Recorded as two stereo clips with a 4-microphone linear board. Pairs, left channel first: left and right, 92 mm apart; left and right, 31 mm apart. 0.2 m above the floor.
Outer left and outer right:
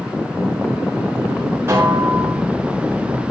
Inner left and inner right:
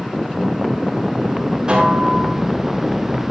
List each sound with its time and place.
1.7 s a snare drum: 30° right (ahead or behind), 3.5 m